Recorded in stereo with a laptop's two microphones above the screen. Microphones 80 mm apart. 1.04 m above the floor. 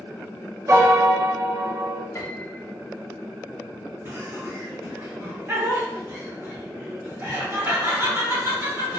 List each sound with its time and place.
0.7 s a piano: 40° right (ahead or behind), 0.6 m
2.1 s a piano: 35° left (ahead or behind), 0.7 m
4.0 s laughter: 30° right (ahead or behind), 1.0 m